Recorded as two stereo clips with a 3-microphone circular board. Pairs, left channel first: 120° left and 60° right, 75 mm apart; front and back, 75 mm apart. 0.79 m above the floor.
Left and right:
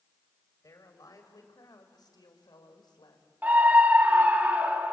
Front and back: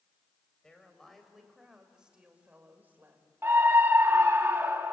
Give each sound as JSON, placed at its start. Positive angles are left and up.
{"t": 0.6, "sound": "a woman speaking", "azimuth_deg": 80, "distance_m": 3.5}
{"t": 3.4, "sound": "a scream", "azimuth_deg": -125, "distance_m": 1.4}